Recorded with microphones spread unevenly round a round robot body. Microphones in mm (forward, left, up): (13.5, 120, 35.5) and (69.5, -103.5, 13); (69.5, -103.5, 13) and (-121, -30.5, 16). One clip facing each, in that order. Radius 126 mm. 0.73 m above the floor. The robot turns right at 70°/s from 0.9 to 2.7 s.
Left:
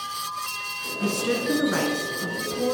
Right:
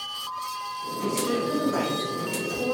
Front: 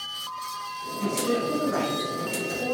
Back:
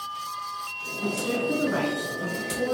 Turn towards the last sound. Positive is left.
turn(degrees=165)